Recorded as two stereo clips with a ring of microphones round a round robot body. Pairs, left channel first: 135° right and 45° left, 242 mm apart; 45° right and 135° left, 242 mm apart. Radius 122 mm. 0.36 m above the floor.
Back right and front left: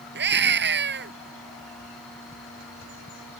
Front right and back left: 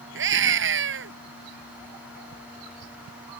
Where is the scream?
95° left.